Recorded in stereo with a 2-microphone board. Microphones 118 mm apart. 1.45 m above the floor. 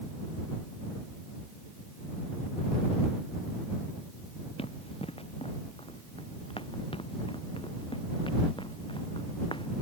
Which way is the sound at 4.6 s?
55° left (ahead or behind).